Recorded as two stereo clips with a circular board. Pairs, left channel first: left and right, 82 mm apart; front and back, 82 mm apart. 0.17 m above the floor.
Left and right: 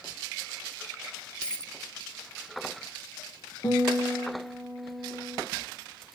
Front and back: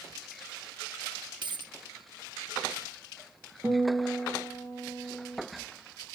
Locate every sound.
1.4 s a dropped coin: 165° left, 0.6 m
3.6 s a guitar: 115° left, 5.5 m